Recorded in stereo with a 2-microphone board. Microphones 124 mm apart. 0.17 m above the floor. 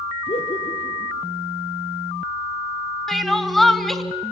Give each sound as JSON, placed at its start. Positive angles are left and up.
{"t": 0.3, "sound": "laughter", "side_deg": 60, "distance_m": 4.5}
{"t": 3.1, "sound": "crying", "side_deg": 0, "distance_m": 1.1}